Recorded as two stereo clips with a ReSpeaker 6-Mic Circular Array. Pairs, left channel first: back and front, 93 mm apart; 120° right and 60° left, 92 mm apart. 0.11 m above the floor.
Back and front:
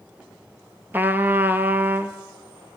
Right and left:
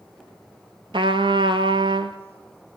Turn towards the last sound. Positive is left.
turn(degrees=65)